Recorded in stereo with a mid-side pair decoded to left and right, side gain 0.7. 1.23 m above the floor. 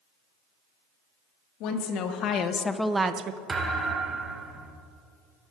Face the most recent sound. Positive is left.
turn(degrees=-25)